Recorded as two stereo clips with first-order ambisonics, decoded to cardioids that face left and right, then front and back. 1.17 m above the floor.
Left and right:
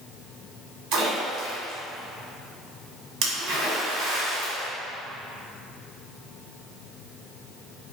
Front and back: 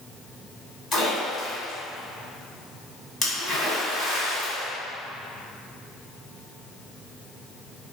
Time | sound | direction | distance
0.9 | a splash | 70° right | 1.5 m